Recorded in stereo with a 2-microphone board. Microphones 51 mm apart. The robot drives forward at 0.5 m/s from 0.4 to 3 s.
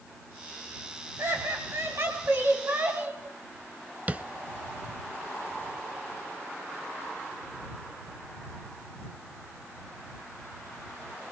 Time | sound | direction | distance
1.2 | laughter | 55° right (ahead or behind) | 2.5 m
4.1 | tapping | 30° right (ahead or behind) | 0.9 m